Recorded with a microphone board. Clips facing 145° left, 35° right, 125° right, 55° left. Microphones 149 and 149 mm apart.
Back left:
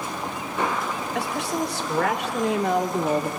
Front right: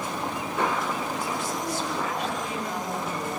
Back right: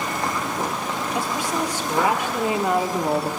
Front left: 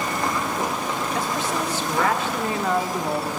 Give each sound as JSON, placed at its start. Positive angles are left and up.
{"t": 1.1, "sound": "a woman speaking", "azimuth_deg": 160, "distance_m": 4.0}